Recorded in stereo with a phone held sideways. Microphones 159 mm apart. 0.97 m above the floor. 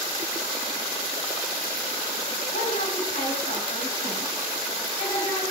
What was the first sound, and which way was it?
A woman speaking, 70° left (ahead or behind).